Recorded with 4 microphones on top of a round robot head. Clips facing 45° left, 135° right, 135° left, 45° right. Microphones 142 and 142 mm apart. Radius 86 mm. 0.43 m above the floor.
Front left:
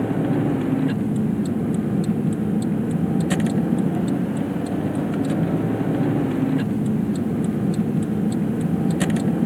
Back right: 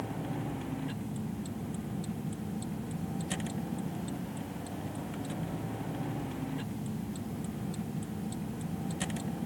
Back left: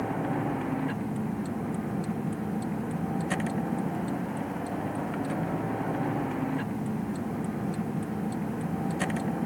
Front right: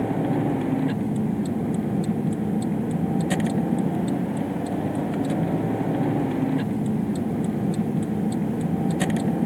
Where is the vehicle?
15° left.